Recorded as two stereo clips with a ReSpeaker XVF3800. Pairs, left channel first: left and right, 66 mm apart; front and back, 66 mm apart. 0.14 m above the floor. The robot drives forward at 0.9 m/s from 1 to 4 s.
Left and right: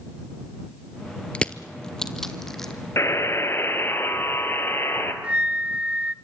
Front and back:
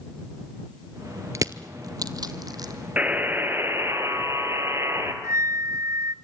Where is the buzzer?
120° left, 1.9 m; by 5.1 s 140° left, 2.5 m.